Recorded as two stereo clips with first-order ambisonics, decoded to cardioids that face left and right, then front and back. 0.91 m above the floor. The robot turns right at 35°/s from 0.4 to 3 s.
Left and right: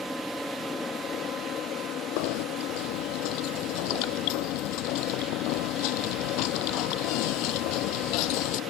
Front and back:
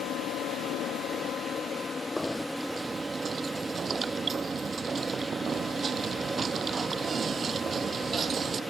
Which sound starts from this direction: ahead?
An aircraft, at 0.0 s.